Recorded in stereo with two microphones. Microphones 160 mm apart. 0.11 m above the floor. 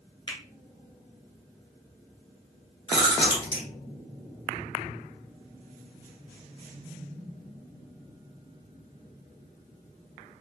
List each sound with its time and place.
0.3 s a finger snap: 30° left (ahead or behind), 1.0 m
2.9 s chewing: 40° left (ahead or behind), 1.4 m